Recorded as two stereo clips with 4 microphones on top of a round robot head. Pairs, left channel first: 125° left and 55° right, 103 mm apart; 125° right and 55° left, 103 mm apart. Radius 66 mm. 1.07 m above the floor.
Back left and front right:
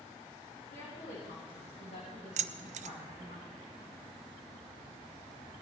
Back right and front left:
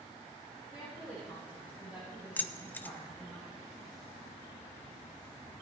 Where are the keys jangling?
50° right, 0.6 m.